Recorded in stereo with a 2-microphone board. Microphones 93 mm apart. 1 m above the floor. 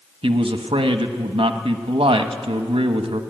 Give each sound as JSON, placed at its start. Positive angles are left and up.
{"t": 0.2, "sound": "a man speaking", "side_deg": -75, "distance_m": 1.1}